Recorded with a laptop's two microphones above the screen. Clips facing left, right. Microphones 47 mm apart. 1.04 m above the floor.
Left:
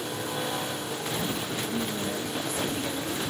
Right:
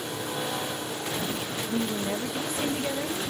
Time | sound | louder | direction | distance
1.7 | a woman speaking | right 5 dB | 50° right (ahead or behind) | 1.1 m